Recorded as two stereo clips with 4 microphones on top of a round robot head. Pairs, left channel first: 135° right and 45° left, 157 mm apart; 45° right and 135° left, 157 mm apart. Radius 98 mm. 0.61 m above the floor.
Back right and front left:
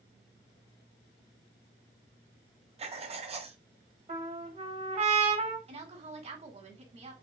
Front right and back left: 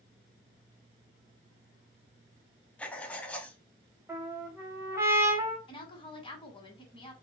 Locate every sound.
2.8 s writing: 35° left, 0.6 m
4.1 s a trumpet: 70° left, 1.1 m
5.7 s a woman speaking: 5° left, 1.2 m